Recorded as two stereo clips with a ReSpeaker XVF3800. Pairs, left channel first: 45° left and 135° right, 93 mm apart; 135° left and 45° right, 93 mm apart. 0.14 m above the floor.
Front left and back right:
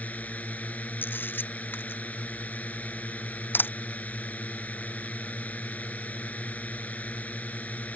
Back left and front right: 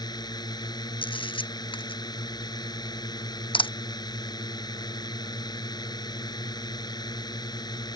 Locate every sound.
0.0 s a drone: 115° left
1.0 s a camera shutter: 115° left